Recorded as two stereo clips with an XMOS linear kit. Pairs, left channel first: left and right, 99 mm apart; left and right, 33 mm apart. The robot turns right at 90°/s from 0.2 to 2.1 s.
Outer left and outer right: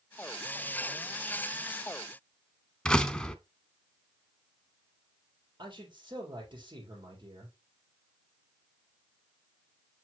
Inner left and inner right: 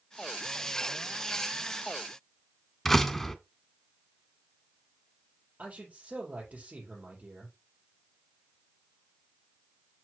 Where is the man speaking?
50° right (ahead or behind), 4 m.